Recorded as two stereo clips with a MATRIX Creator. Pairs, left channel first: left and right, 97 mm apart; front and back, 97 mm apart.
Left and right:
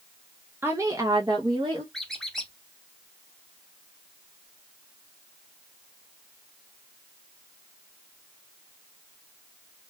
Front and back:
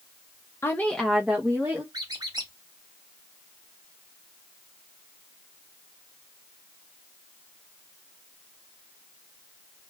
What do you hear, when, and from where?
0.6 s a woman speaking: 40° right, 0.6 m; by 1.8 s 120° right, 0.9 m
1.9 s a squeak: 175° left, 0.8 m